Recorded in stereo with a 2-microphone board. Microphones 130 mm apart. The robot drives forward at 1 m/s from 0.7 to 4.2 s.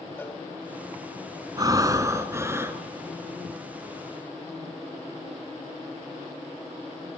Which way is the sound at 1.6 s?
30° right (ahead or behind).